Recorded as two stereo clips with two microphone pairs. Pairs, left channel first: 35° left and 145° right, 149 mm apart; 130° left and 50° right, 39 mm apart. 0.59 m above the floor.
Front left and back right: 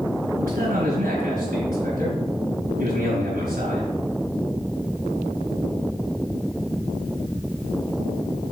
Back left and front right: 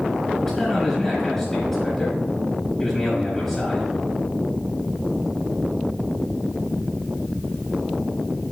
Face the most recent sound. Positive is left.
turn(degrees=-150)